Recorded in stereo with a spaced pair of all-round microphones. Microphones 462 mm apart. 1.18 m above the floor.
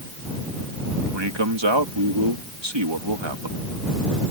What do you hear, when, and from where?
1.1 s a man speaking: 70° right (ahead or behind)